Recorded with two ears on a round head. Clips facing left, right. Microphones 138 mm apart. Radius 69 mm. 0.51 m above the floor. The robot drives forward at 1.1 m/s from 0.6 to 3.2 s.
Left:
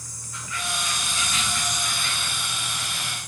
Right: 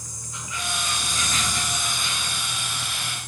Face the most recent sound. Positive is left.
turn(degrees=-5)  # may be behind; listen again after turning